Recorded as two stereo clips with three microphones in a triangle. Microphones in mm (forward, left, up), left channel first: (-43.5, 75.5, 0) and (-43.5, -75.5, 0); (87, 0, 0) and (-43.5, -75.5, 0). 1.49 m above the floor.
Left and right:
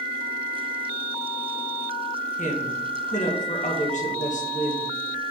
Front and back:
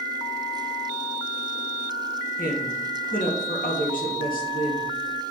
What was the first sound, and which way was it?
A woman speaking, 55° left.